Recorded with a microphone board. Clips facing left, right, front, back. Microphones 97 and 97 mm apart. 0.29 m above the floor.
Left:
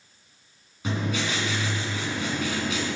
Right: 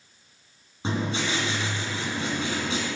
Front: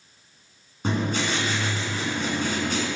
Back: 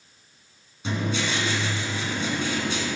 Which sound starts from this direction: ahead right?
Writing, at 0.8 s.